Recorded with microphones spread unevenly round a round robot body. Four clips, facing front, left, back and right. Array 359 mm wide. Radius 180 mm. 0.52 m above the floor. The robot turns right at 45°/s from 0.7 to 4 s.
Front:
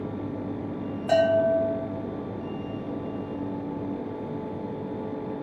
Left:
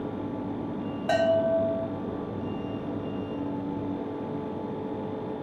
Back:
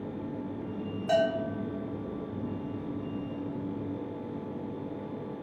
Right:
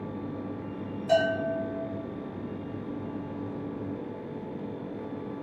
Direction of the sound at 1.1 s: 70° left.